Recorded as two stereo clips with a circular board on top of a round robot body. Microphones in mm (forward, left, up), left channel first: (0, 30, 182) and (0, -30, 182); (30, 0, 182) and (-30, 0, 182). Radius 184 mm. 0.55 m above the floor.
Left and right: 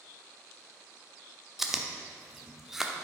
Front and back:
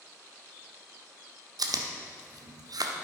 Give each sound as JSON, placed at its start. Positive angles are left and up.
{"t": 1.6, "sound": "chewing", "azimuth_deg": -175, "distance_m": 0.8}